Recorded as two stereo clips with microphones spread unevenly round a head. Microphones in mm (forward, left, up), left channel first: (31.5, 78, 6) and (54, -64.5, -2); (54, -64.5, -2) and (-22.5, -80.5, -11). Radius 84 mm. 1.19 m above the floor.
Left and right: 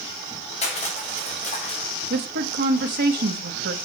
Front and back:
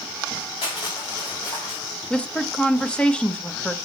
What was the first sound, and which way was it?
Crushing, 55° left.